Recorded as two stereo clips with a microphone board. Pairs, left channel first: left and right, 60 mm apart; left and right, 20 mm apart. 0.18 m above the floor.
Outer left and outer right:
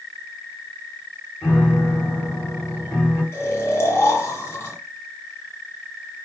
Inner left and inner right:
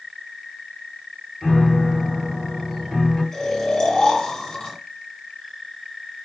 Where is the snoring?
40° left (ahead or behind), 1.9 m.